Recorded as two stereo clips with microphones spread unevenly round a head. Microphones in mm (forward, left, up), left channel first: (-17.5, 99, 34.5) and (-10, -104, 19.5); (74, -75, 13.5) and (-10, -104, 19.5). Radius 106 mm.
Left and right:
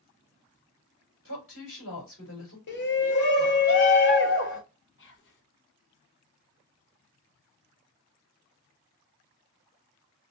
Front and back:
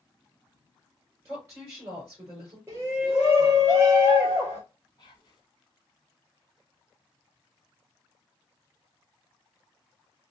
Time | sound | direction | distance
1.2 | a woman speaking | 120° left | 3 m
2.7 | a shout | 125° left | 1.0 m
5.0 | whispering | 70° left | 1.3 m